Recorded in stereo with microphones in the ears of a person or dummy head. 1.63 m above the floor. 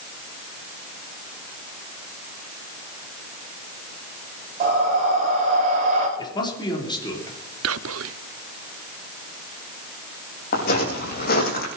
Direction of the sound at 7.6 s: 75° right (ahead or behind).